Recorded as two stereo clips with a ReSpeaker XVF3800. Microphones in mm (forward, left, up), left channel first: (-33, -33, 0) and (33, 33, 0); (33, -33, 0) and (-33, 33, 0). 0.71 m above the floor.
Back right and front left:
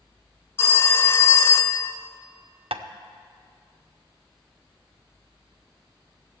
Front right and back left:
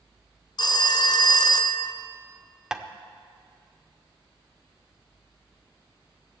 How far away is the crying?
No crying in this recording.